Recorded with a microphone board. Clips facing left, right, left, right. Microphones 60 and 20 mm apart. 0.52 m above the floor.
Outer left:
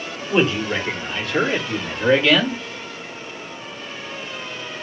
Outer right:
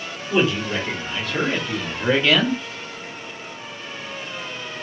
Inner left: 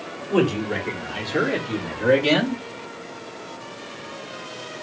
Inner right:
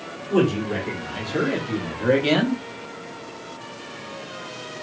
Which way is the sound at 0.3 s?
10° left (ahead or behind).